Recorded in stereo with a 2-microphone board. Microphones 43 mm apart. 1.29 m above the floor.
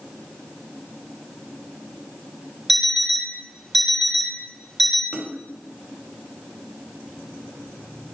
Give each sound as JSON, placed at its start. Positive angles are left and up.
{"t": 2.7, "sound": "an alarm clock", "side_deg": 0, "distance_m": 1.2}
{"t": 5.1, "sound": "a splash", "side_deg": -25, "distance_m": 0.7}